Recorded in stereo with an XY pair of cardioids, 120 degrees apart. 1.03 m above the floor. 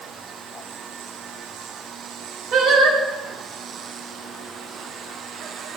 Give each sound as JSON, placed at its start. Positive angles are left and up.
{"t": 2.5, "sound": "singing", "azimuth_deg": -60, "distance_m": 1.4}